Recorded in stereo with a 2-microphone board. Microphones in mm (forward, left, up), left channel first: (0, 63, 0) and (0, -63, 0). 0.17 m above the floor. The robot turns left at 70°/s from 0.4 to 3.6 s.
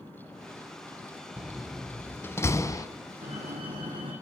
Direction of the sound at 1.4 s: 10° right (ahead or behind).